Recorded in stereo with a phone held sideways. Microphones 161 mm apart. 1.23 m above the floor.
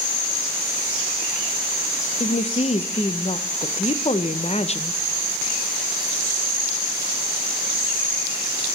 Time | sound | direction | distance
2.2 | a woman speaking | 40° left (ahead or behind) | 0.6 m